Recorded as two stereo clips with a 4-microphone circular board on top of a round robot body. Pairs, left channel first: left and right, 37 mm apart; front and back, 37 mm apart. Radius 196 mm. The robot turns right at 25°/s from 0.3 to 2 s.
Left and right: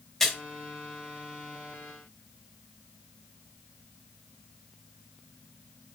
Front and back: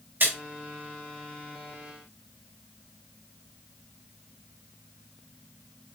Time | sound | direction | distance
0.2 | a splash | 170° left | 4.5 m